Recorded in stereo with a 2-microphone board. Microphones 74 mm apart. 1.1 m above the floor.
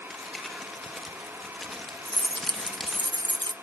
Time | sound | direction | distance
0.1 | crumpling | centre (ahead or behind) | 1.9 m
2.0 | keys jangling | 80° right | 0.5 m